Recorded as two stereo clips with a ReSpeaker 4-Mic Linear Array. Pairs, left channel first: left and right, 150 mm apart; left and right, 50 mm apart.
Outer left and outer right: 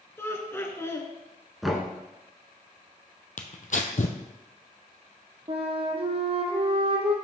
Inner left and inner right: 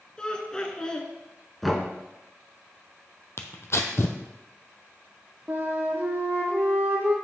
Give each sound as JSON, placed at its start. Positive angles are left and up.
{"t": 0.2, "sound": "laughter", "side_deg": 15, "distance_m": 1.1}
{"t": 1.6, "sound": "knocking", "side_deg": 0, "distance_m": 1.2}
{"t": 3.4, "sound": "tearing paper", "side_deg": 60, "distance_m": 0.7}
{"t": 5.5, "sound": "a flute", "side_deg": -45, "distance_m": 1.1}